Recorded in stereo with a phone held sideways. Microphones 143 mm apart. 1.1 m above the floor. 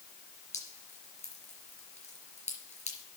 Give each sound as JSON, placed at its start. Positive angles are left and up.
{"t": 0.5, "sound": "dripping", "side_deg": 50, "distance_m": 4.0}